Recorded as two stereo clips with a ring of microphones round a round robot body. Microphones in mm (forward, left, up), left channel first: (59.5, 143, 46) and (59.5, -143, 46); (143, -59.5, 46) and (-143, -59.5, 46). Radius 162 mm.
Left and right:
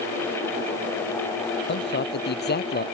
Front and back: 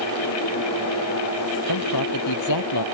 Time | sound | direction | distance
1.7 | a man speaking | 35° left | ?